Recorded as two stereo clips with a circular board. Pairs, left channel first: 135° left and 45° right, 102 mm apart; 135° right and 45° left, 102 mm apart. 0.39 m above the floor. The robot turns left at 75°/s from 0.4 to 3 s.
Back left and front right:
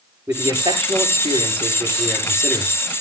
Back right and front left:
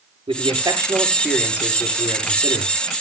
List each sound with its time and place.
0.3 s a man speaking: 20° left, 7.5 m; by 2.7 s 160° right, 7.5 m